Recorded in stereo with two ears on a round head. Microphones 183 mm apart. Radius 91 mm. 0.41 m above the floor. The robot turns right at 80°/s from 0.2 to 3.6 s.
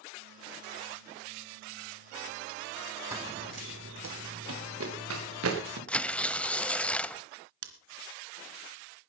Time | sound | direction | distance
3.1 | running footsteps | 15° right (ahead or behind) | 1.3 m
5.9 | tearing paper | 5° left (ahead or behind) | 0.7 m
7.6 | scissors | 70° right (ahead or behind) | 2.5 m